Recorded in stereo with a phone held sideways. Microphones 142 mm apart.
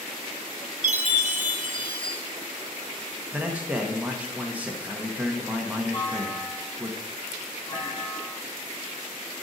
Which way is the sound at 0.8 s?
60° right (ahead or behind).